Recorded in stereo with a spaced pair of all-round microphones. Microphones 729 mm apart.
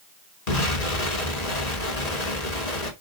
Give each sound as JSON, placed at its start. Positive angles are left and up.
{"t": 0.5, "sound": "an explosion", "side_deg": 60, "distance_m": 2.5}